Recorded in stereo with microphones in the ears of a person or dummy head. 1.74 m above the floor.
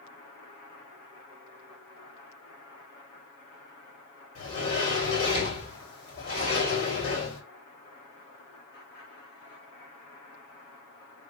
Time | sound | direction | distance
4.3 | a sliding door | 55° left (ahead or behind) | 3 m